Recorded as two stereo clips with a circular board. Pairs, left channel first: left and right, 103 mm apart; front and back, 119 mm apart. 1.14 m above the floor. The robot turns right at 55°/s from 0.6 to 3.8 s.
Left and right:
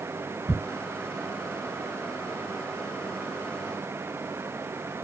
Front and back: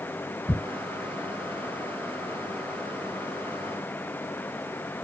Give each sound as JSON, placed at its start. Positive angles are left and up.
{"t": 0.5, "sound": "ticking", "azimuth_deg": -140, "distance_m": 1.3}